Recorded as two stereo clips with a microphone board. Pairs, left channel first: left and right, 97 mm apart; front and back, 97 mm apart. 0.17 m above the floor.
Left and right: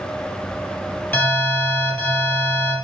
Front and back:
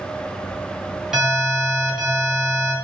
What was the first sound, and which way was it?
An alarm, 105° left.